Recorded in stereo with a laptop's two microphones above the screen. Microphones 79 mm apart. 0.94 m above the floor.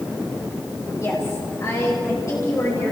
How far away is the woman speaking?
About 4.5 m.